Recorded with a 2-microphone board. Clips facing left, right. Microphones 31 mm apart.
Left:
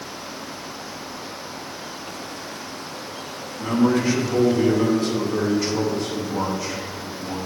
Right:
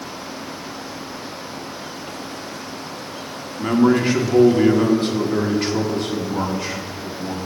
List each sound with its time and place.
3.6 s a man speaking: 50° right (ahead or behind), 1.1 m